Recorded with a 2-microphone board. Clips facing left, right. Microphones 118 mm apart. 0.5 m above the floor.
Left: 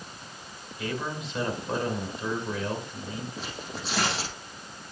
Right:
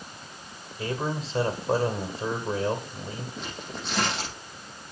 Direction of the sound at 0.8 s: 30° right (ahead or behind).